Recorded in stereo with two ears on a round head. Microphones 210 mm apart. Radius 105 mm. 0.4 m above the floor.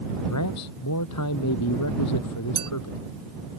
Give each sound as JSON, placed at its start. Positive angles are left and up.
{"t": 0.3, "sound": "a man speaking", "side_deg": 80}
{"t": 2.5, "sound": "a clink", "side_deg": -25}